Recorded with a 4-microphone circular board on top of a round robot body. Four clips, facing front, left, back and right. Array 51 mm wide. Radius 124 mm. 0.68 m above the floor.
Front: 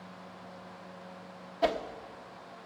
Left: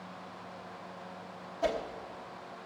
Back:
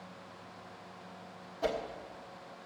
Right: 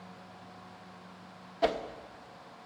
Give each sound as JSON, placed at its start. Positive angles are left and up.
{"t": 1.6, "sound": "a whoosh", "azimuth_deg": -55, "distance_m": 1.1}